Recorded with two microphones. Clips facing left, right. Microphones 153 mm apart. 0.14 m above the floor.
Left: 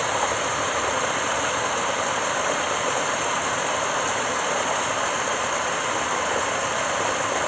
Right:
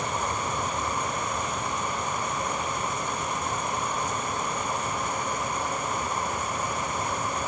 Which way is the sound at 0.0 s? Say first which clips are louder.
Left 5 dB; 80° left.